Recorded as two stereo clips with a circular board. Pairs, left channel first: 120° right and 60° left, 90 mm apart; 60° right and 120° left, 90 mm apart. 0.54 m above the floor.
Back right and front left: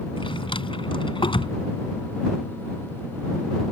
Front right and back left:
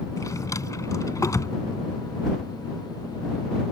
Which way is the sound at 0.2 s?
110° right.